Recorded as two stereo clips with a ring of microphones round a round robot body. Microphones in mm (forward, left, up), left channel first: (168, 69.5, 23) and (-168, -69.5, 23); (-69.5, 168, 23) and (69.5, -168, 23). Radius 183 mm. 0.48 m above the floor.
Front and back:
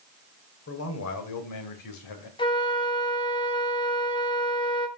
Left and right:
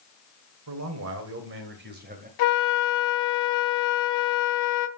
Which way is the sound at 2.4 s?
100° left.